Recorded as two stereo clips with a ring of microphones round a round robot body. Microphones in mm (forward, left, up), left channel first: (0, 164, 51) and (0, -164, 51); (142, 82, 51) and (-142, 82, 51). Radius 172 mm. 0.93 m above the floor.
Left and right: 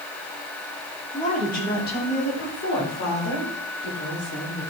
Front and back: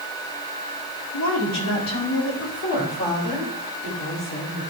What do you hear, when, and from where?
1.1 s a woman speaking: 20° left, 2.5 m; by 4.7 s 45° left, 7 m